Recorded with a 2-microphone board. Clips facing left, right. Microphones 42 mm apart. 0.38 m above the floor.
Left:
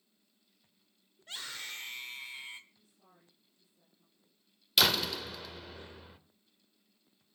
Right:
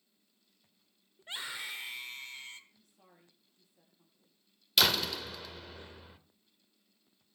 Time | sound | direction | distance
1.2 | a scream | 30° right (ahead or behind) | 1.1 m
2.7 | a woman speaking | 75° right (ahead or behind) | 7.5 m
4.8 | a door slam | centre (ahead or behind) | 0.8 m